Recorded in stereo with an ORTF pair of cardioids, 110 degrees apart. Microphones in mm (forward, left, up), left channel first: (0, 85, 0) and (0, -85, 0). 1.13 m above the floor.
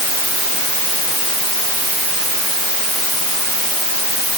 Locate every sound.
Only background noise.